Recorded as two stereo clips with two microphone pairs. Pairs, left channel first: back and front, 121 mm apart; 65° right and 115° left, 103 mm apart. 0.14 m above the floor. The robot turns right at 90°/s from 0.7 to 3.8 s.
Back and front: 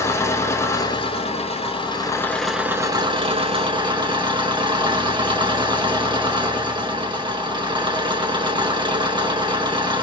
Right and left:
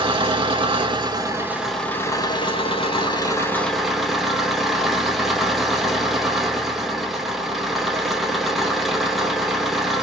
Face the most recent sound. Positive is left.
turn(degrees=30)